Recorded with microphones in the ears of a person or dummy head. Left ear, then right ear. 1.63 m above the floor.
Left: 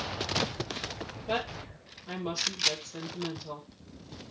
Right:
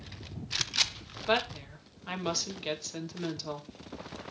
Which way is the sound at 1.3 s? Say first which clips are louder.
Right 4 dB; 60° right (ahead or behind).